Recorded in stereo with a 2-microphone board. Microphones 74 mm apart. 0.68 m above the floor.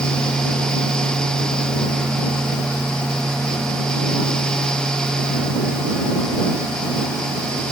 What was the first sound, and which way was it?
Only background noise.